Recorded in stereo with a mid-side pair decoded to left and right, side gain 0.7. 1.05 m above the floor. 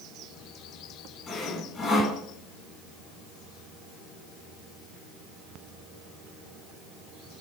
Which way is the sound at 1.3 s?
25° left.